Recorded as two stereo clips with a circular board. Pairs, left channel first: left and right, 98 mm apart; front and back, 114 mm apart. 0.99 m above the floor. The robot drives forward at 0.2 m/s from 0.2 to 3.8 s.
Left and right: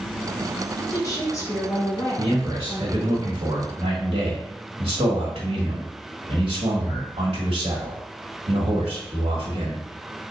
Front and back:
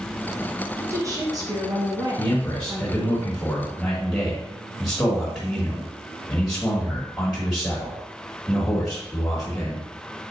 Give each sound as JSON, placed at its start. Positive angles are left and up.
{"t": 0.8, "sound": "a woman speaking", "azimuth_deg": 125, "distance_m": 1.0}
{"t": 2.2, "sound": "a man speaking", "azimuth_deg": -70, "distance_m": 1.4}